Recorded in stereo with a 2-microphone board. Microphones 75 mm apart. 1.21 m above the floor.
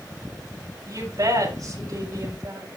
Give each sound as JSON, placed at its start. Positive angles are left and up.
{"t": 0.9, "sound": "a woman speaking", "side_deg": -60, "distance_m": 7.0}